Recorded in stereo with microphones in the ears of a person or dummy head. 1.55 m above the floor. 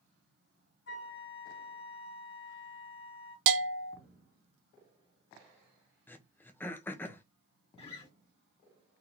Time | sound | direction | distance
0.9 | a flute | 55° left (ahead or behind) | 0.6 m
3.5 | a bell | 60° right (ahead or behind) | 0.5 m
6.1 | throat clearing | 15° left (ahead or behind) | 0.6 m
7.8 | a guitar | 30° left (ahead or behind) | 1.1 m